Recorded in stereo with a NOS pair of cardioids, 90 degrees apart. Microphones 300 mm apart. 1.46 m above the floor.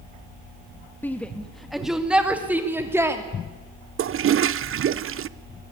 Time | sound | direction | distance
1.0 | a shout | 5° left | 1.7 m
4.0 | a toilet flushing | 45° right | 0.7 m